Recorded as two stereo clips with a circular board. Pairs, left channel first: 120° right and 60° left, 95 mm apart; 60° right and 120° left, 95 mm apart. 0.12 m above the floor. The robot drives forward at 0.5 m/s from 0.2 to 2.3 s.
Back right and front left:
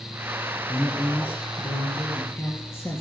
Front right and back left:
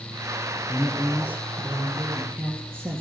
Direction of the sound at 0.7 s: 175° right.